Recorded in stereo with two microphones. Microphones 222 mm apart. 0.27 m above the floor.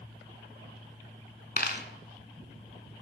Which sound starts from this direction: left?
A dropped coin, at 1.6 s.